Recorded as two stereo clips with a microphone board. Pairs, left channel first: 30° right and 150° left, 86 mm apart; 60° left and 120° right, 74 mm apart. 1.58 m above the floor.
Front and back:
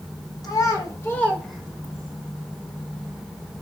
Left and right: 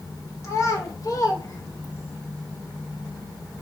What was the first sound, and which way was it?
A child speaking, 15° left.